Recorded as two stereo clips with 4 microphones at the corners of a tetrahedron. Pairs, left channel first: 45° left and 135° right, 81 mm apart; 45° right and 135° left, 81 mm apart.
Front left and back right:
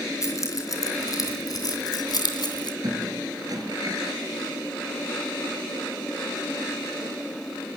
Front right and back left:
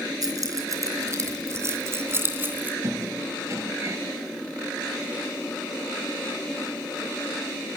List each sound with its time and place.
0.2 s keys jangling: 95° left, 4 m; by 2.7 s 70° left, 3 m
2.8 s a squeak: 175° right, 3.5 m